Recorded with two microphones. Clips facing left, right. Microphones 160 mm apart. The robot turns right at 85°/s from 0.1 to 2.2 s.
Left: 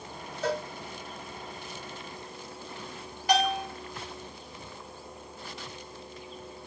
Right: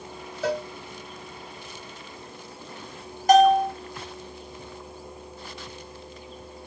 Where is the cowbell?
10° right (ahead or behind), 0.9 m; by 0.7 s 20° right (ahead or behind), 0.9 m.